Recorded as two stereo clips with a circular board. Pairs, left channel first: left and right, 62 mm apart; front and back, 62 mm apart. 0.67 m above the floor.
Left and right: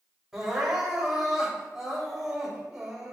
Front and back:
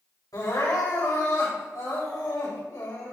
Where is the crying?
10° right, 3.5 m.